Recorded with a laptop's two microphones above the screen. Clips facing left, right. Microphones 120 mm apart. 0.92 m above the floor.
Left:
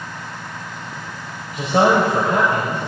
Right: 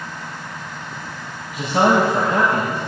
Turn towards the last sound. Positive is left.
turn(degrees=45)  # may be behind; listen again after turning